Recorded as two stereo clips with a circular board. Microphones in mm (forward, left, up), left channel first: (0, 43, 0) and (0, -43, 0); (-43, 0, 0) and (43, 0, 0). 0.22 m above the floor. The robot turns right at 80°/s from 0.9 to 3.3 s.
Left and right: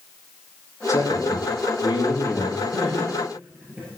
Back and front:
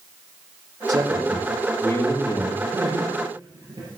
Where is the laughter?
60° right, 4.5 m; by 3.9 s 10° right, 4.5 m.